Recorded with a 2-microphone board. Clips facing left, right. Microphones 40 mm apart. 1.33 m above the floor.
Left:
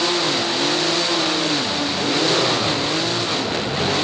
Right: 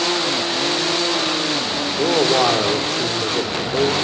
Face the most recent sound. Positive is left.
turn(degrees=-70)  # may be behind; listen again after turning